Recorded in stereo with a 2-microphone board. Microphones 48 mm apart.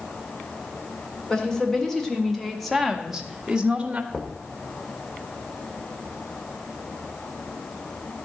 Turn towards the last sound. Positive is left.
turn(degrees=5)  # may be behind; listen again after turning